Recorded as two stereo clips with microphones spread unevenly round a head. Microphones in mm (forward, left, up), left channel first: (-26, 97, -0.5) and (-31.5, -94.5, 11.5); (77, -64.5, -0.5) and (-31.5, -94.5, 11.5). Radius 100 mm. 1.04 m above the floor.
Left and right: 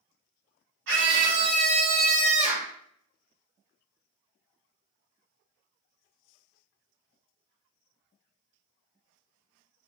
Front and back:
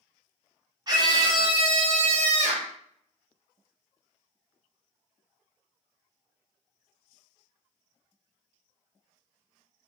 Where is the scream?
110° right, 2.5 m; by 2.7 s 155° right, 2 m.